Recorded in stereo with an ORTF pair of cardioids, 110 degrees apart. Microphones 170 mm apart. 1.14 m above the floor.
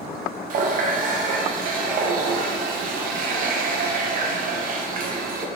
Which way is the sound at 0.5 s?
55° right.